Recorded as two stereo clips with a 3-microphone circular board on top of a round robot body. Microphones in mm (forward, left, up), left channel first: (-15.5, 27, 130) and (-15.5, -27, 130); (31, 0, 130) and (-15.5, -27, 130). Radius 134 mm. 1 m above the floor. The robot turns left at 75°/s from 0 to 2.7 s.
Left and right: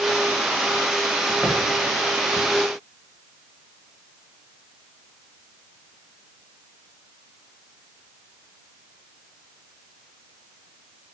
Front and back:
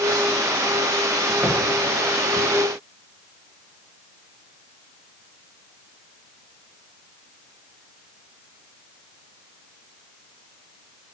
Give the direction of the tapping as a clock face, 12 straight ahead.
6 o'clock.